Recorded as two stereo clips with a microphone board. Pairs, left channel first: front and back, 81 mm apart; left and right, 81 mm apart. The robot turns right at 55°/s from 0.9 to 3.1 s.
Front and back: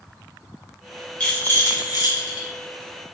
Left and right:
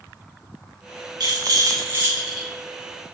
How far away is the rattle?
About 3.5 m.